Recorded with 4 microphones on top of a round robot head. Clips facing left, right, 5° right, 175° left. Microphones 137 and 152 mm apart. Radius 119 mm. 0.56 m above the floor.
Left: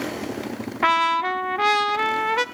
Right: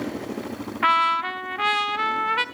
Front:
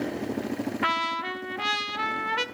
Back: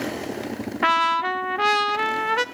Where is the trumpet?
140° left, 1.1 m.